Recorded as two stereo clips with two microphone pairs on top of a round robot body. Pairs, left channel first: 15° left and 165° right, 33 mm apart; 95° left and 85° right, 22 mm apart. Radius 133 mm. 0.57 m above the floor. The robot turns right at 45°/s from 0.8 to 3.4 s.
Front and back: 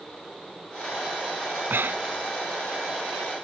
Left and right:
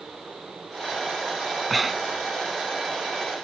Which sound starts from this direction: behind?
Breathing, at 1.7 s.